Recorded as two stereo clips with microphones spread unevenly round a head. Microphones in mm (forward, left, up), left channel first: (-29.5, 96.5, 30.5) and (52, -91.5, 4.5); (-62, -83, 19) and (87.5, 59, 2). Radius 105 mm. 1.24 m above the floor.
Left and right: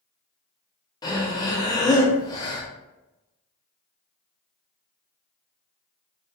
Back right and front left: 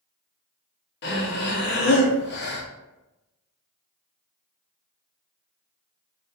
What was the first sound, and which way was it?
Breathing, 170° right.